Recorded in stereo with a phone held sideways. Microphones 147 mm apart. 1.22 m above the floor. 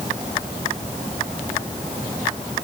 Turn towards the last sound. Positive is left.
No sound to turn to.